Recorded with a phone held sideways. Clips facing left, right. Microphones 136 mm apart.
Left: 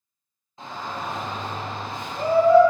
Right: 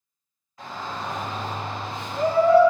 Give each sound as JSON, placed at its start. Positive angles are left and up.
{"t": 0.6, "sound": "a shout", "side_deg": 25, "distance_m": 0.7}